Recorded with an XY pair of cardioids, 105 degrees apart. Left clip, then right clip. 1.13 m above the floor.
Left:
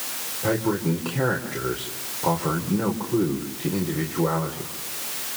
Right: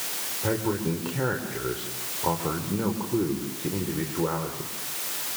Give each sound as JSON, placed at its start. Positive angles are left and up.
{"t": 0.4, "sound": "a man speaking", "azimuth_deg": 10, "distance_m": 4.0}